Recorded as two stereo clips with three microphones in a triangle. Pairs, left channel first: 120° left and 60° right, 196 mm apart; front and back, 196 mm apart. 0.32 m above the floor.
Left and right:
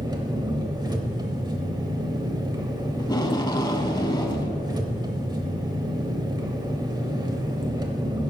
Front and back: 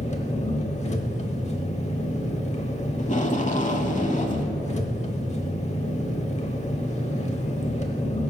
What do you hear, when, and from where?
0.0 s an engine running: 10° right, 0.8 m
3.0 s tape being pulled: 55° left, 0.6 m